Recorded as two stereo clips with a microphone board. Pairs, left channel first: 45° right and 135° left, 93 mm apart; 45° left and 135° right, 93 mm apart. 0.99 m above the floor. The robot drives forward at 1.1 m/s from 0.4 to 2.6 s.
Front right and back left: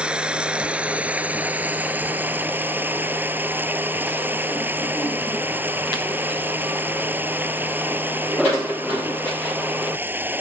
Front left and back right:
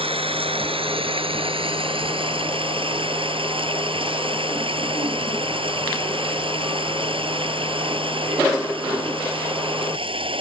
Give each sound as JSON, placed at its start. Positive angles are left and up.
{"t": 0.0, "sound": "running water", "azimuth_deg": -145}